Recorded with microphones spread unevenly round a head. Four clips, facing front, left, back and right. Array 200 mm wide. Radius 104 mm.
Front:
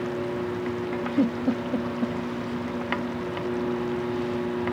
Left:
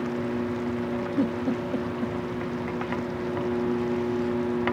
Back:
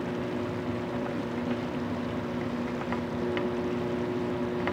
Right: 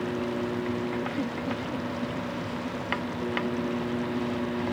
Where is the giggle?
20° left.